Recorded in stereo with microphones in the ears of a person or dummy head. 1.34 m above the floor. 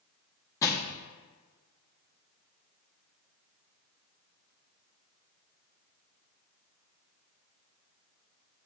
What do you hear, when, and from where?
0.6 s crushing: 15° left (ahead or behind), 1.0 m